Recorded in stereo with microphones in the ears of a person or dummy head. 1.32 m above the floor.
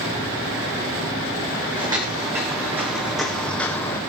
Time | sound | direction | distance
1.8 | footsteps | 20° right (ahead or behind) | 4 m